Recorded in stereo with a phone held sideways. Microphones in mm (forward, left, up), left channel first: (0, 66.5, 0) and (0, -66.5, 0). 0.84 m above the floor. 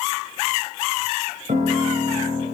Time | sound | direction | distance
1.5 | a piano | 75° right (ahead or behind) | 3.5 m